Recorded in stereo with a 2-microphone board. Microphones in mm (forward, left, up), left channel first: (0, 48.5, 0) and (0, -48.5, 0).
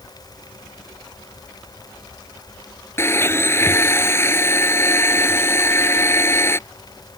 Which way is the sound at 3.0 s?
25° left (ahead or behind).